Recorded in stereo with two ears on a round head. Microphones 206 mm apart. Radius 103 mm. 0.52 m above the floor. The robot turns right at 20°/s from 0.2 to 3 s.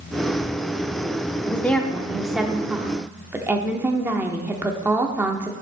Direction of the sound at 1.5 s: 165° left.